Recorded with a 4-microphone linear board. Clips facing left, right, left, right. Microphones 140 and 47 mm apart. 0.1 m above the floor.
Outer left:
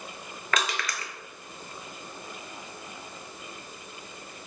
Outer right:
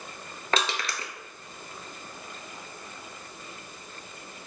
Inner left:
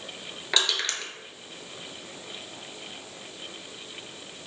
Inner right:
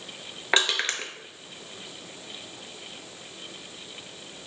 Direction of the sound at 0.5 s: 30° right (ahead or behind).